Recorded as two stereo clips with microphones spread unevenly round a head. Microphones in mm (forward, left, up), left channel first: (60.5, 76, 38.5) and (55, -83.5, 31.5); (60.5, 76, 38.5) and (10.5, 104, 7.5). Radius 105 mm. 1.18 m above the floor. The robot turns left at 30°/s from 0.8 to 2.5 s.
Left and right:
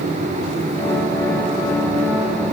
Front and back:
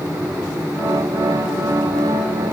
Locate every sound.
Only background noise.